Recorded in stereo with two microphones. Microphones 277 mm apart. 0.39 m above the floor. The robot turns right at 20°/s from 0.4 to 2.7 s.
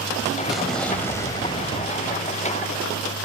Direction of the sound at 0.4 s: 5° right.